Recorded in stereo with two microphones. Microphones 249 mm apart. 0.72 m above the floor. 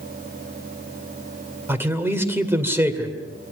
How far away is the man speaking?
About 2 m.